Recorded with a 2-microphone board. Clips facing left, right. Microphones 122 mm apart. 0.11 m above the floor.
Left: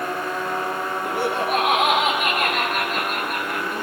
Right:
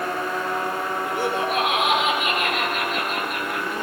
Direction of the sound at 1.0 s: 70° left (ahead or behind).